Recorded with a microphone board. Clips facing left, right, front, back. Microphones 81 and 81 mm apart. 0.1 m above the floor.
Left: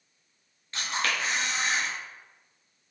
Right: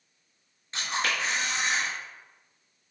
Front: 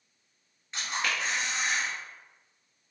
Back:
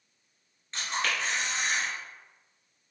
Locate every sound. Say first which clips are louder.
0.7 s a camera shutter: even, back 1 dB; 70° right, 1.2 m